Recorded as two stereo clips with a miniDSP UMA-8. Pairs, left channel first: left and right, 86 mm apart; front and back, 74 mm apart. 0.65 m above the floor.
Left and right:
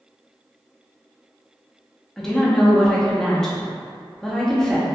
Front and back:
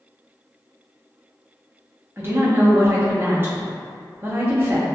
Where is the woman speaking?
170° left, 0.5 m.